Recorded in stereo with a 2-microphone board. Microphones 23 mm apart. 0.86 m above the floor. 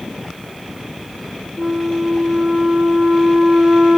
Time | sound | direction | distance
1.6 | a flute | 50° right (ahead or behind) | 0.7 m